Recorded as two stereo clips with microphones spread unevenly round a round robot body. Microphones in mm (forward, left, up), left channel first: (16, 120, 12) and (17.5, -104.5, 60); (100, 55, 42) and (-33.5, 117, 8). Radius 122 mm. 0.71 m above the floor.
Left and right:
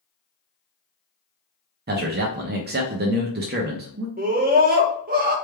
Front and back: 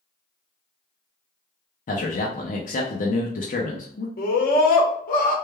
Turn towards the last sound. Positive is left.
turn(degrees=-35)